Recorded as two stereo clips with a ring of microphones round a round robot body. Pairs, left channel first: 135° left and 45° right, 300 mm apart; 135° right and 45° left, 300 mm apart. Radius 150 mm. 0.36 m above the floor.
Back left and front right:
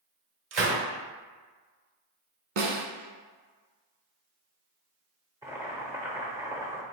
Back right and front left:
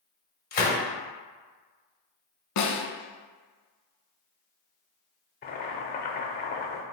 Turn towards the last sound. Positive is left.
turn(degrees=-115)